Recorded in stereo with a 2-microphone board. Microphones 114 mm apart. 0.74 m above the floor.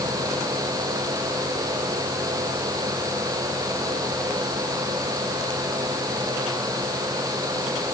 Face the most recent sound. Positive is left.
No sound to turn to.